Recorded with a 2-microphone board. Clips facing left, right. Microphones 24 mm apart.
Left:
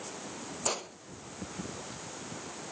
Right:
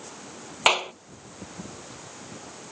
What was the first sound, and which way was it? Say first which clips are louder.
A clap: right 14 dB; 70° right (ahead or behind).